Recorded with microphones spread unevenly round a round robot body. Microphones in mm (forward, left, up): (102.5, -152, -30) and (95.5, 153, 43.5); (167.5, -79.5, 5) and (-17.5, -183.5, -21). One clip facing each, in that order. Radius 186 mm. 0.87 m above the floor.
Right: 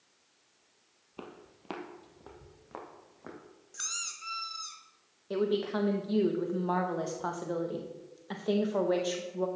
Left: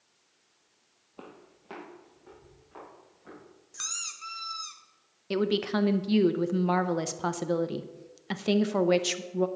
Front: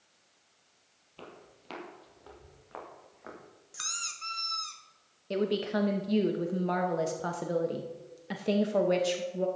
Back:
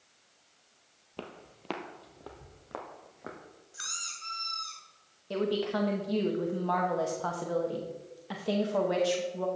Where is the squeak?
20° left, 1.1 m.